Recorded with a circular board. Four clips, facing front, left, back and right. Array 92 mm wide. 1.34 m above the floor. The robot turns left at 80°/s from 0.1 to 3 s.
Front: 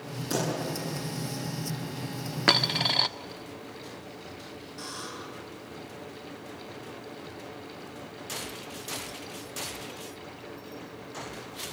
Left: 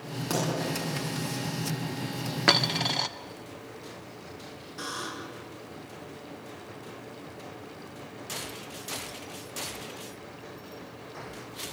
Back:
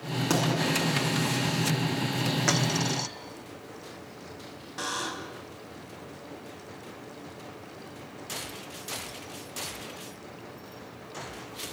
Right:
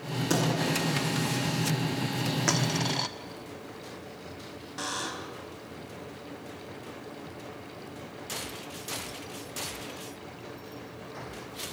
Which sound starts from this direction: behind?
A pop, at 0.3 s.